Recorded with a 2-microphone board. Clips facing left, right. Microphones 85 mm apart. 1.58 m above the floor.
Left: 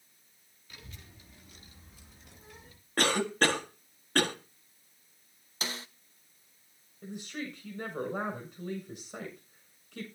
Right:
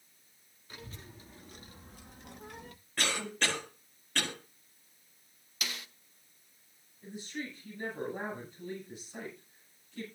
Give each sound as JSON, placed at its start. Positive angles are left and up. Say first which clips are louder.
{"t": 0.7, "sound": "a child speaking", "louder": "right 4 dB", "side_deg": -35, "distance_m": 3.0}
{"t": 3.0, "sound": "a cough", "louder": "left 7 dB", "side_deg": 45, "distance_m": 1.7}
{"t": 5.6, "sound": "a snare drum", "louder": "left 3 dB", "side_deg": 30, "distance_m": 0.7}
{"t": 7.0, "sound": "a woman speaking", "louder": "left 2 dB", "side_deg": 60, "distance_m": 7.0}